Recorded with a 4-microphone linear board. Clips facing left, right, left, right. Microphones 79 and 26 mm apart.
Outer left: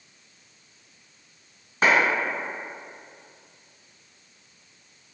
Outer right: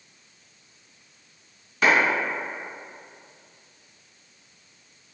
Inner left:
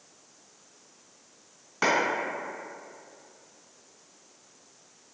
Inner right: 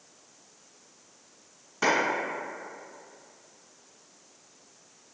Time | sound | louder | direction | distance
1.8 | a clap | even, even | 30° left (ahead or behind) | 1.7 m